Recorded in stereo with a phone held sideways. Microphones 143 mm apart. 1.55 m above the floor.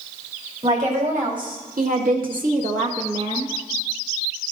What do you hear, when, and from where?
0.6 s a woman speaking: 60° right (ahead or behind), 3.5 m; by 3.5 s 35° right (ahead or behind), 2.5 m